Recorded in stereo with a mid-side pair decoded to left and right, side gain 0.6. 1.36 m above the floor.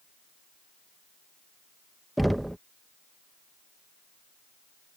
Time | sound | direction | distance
2.2 | knocking | 5° right | ?